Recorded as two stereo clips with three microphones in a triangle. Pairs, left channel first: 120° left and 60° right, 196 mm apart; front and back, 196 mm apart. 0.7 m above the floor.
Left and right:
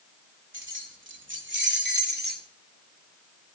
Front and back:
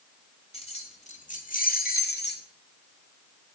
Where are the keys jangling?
60° right, 2 m; by 2.4 s 25° right, 1.6 m.